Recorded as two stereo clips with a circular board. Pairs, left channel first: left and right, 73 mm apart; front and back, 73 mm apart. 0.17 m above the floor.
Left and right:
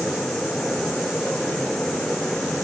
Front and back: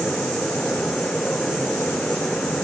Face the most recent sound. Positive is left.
No sound to turn to.